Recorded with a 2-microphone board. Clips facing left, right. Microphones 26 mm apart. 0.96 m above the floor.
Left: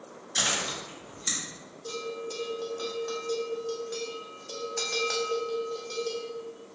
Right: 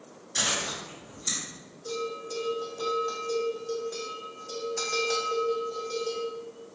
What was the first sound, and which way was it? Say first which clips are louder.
Chewing: left 1 dB; 30° left (ahead or behind).